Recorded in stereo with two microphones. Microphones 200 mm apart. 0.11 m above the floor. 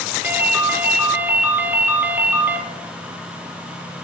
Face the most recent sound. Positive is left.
turn(degrees=-10)  # may be behind; listen again after turning